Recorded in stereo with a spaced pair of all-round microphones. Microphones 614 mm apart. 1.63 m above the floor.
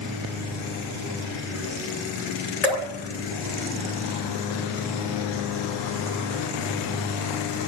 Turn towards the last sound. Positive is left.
turn(degrees=85)